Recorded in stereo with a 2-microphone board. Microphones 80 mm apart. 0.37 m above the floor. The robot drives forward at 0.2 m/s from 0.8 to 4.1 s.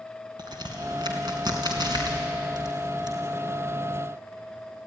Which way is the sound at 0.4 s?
65° right (ahead or behind).